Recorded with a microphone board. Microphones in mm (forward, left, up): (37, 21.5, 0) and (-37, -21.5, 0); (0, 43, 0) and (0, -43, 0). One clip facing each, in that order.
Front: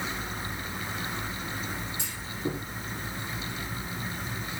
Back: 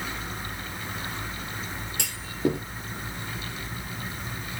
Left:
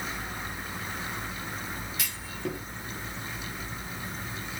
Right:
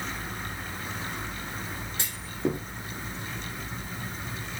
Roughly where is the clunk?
Behind right.